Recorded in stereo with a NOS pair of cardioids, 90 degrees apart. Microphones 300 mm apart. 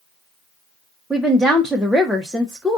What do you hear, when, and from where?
1.1 s a woman speaking: straight ahead, 0.6 m